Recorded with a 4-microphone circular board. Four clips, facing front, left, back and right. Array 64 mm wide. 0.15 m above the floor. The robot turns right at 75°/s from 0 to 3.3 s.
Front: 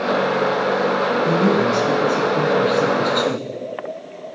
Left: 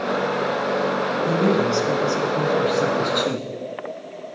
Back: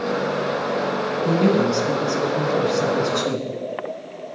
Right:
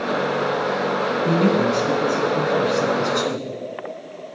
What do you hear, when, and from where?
1.2 s a man speaking: 100° right, 1.8 m; by 3.5 s 55° left, 1.8 m